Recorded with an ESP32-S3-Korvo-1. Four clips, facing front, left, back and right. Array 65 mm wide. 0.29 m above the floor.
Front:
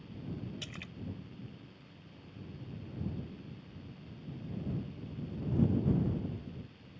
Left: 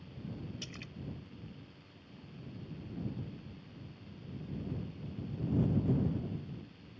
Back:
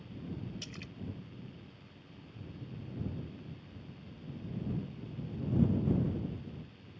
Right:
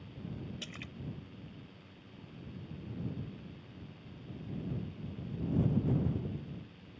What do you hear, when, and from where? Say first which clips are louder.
0.6 s a splash: right 1 dB, front 1 dB; 40° right